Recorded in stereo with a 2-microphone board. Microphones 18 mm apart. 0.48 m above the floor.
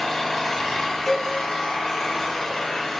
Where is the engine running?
25° left (ahead or behind), 1.5 m.